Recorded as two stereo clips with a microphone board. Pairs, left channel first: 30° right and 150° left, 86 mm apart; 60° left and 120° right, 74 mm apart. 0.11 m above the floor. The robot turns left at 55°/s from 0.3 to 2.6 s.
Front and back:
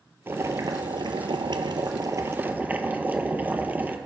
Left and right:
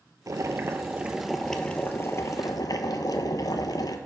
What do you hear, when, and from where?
0.3 s boiling: 150° right, 0.6 m; by 4.0 s 80° left, 0.6 m